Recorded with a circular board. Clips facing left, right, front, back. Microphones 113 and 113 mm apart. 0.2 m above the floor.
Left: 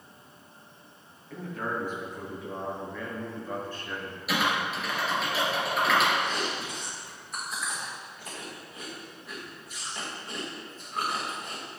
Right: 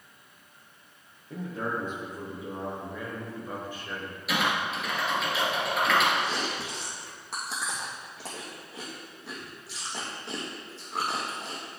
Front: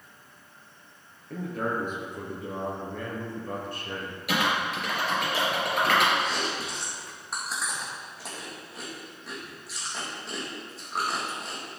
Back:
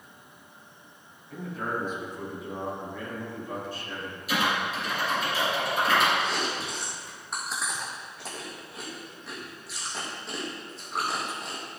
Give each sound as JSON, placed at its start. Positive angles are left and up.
{"t": 1.3, "sound": "a man speaking", "azimuth_deg": -30, "distance_m": 3.5}
{"t": 4.3, "sound": "typing on a keyboard", "azimuth_deg": 0, "distance_m": 3.0}
{"t": 6.2, "sound": "chewing", "azimuth_deg": -90, "distance_m": 3.0}